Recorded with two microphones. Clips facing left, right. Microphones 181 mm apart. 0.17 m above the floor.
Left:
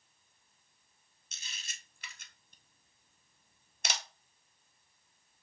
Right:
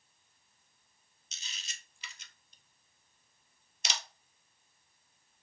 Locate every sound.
1.3 s a camera shutter: 55° left (ahead or behind), 0.6 m